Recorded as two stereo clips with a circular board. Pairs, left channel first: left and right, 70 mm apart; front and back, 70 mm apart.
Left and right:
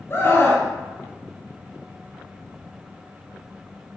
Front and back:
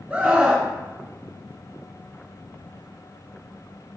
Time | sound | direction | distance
0.1 | a scream | 120° left | 2 m